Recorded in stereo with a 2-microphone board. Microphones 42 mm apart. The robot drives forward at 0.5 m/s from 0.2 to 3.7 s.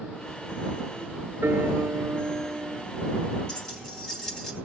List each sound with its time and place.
1.4 s a piano: 70° right (ahead or behind), 1.4 m; by 2.9 s 65° right (ahead or behind), 1.4 m
3.5 s keys jangling: 20° left (ahead or behind), 4 m; by 4.5 s 15° left (ahead or behind), 4 m